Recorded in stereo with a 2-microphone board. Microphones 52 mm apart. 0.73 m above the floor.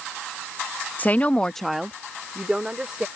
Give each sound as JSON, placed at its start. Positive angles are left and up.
{"t": 1.0, "sound": "a woman speaking", "side_deg": 30}